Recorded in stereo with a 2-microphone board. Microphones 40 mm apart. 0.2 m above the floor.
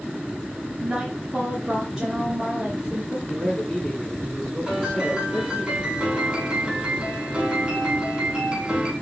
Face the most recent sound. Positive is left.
turn(degrees=-25)  # may be behind; listen again after turning